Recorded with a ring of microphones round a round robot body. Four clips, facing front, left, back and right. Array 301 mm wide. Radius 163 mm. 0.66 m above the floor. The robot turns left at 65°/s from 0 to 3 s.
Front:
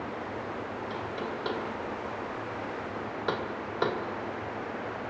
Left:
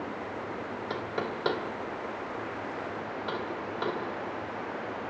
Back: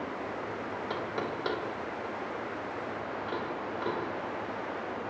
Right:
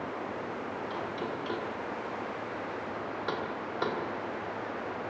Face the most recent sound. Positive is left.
turn(degrees=-5)